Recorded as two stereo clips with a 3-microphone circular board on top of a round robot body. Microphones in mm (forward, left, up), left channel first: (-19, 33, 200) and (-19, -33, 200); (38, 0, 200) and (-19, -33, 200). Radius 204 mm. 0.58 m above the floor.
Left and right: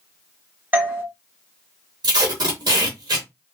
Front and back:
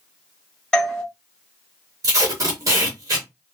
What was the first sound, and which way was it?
A doorbell, 45° right.